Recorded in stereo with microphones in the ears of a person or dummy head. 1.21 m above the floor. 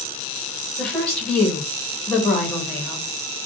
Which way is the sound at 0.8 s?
10° left (ahead or behind).